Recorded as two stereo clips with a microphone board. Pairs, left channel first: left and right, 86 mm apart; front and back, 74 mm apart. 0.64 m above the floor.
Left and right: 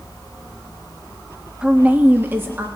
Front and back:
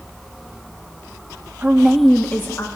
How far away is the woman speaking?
About 0.6 m.